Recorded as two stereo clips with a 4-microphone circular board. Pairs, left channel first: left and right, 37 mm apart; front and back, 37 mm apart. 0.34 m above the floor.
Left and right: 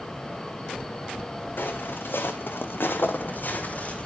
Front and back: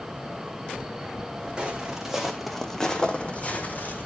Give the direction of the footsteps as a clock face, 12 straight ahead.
8 o'clock.